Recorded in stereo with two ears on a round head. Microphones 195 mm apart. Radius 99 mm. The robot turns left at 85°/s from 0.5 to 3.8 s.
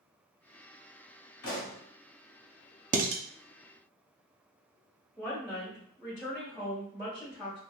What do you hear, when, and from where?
1.4 s a pop: 105° left, 1.6 m; by 1.8 s 75° left, 1.6 m
2.9 s dishes clattering: 35° right (ahead or behind), 0.5 m; by 3.2 s 50° right (ahead or behind), 0.5 m
5.2 s a woman speaking: 5° left (ahead or behind), 1.5 m